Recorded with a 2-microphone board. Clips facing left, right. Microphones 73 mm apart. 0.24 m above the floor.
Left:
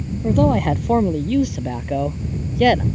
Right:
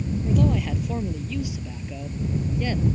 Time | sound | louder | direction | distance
0.2 | a man speaking | left 8 dB | 50° left (ahead or behind) | ?